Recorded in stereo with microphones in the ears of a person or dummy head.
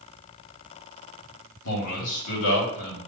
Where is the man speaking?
75° left (ahead or behind), 2 m.